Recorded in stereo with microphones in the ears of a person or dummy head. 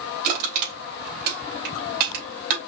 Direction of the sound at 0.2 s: 45° right (ahead or behind).